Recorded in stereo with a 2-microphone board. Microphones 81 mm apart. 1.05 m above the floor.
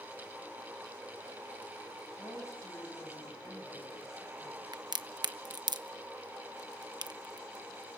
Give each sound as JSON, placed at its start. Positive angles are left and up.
{"t": 2.2, "sound": "a woman speaking", "side_deg": 35, "distance_m": 7.5}
{"t": 4.7, "sound": "a crack", "side_deg": -55, "distance_m": 1.1}